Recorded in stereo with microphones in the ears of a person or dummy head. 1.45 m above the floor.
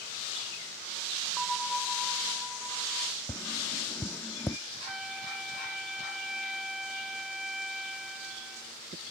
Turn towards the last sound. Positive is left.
turn(degrees=-5)  # may be behind; listen again after turning